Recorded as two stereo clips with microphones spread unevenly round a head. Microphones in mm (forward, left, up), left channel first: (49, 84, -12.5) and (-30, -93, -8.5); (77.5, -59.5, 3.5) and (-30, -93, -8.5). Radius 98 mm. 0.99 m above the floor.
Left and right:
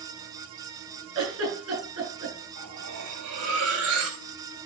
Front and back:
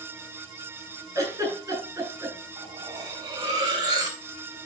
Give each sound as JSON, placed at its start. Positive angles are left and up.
{"t": 1.1, "sound": "a giggle", "azimuth_deg": -100, "distance_m": 9.0}
{"t": 2.6, "sound": "cutlery clinking", "azimuth_deg": -110, "distance_m": 3.0}